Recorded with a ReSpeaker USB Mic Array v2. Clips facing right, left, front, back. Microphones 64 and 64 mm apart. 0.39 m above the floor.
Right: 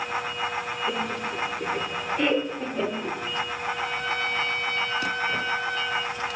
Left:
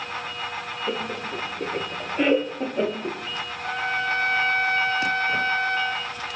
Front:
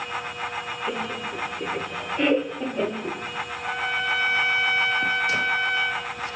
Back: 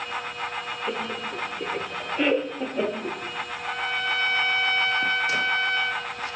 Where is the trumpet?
80° left, 2 m.